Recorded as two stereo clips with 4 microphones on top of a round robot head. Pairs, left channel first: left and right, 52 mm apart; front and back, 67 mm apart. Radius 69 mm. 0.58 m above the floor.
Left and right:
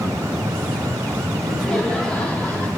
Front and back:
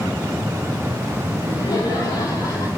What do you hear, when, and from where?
1.4 s laughter: 5° left, 4.5 m; by 2.7 s 30° left, 4.5 m